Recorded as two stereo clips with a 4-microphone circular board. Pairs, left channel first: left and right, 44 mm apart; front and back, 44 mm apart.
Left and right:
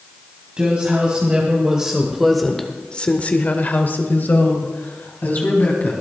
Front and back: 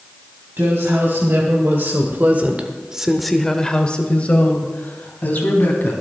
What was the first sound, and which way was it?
A woman speaking, 150° right.